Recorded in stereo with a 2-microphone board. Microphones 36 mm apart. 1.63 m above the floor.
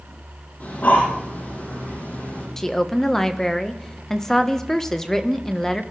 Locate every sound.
0.6 s breathing: 55° left (ahead or behind), 9.5 m
2.6 s a woman speaking: 15° left (ahead or behind), 1.3 m